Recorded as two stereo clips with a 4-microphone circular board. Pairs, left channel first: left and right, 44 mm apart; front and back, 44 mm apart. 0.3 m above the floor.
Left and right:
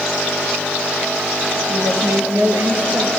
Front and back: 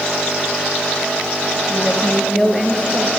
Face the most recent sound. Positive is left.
turn(degrees=-95)